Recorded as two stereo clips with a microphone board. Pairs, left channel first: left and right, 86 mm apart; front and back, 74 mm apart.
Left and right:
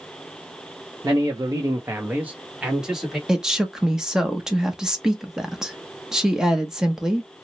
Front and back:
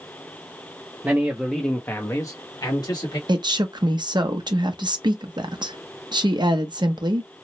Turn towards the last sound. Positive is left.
turn(degrees=-170)